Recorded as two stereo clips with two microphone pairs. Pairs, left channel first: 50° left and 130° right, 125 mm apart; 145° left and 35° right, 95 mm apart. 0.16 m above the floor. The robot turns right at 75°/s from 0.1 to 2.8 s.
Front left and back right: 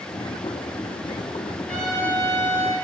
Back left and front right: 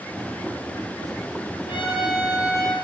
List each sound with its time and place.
1.7 s a trumpet: 125° left, 3 m; by 2.7 s 155° right, 3 m